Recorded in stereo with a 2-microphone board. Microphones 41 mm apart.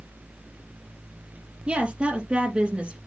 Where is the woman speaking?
30° right (ahead or behind), 3.5 m.